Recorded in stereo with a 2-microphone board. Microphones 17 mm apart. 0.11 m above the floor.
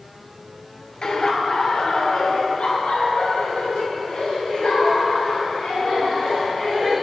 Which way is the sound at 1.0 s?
45° left (ahead or behind).